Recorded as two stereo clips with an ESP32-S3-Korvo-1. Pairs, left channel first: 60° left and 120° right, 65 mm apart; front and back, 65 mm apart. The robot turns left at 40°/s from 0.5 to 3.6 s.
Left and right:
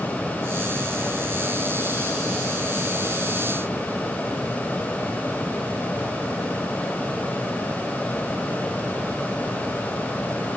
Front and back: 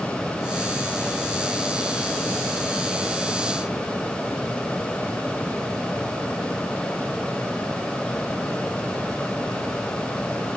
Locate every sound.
Only background noise.